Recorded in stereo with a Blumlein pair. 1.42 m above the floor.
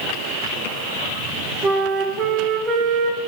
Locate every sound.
1.6 s a flute: 25° right, 1.3 m